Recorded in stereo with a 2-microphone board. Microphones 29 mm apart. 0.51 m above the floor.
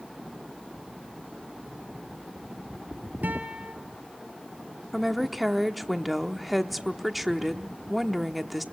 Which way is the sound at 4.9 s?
Centre (ahead or behind).